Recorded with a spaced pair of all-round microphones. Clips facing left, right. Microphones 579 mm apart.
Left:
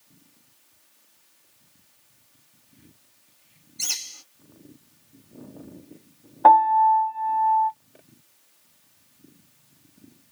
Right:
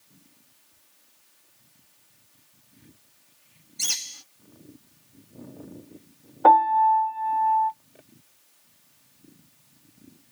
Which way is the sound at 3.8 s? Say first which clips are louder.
Right 1 dB; 40° right (ahead or behind).